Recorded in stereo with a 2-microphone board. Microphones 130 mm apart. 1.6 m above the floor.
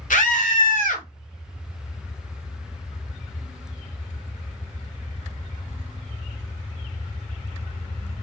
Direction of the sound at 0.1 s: 85° left.